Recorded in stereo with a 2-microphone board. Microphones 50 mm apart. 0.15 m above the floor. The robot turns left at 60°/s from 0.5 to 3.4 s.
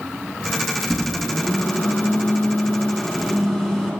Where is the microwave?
175° left, 1.2 m; by 3.9 s 20° left, 1.2 m.